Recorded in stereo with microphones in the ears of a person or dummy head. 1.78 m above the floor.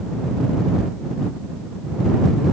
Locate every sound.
Only background noise.